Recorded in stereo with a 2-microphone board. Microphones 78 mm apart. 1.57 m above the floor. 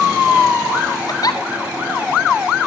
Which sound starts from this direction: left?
A giggle, at 1.1 s.